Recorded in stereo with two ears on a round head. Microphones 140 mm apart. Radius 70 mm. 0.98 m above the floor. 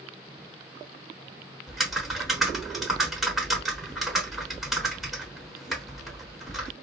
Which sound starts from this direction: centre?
Typing on a keyboard, at 1.7 s.